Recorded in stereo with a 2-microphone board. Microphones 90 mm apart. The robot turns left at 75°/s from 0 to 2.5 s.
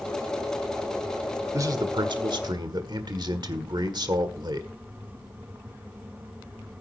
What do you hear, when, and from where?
1.5 s a man speaking: 40° right, 1.6 m; by 4.7 s 115° right, 1.6 m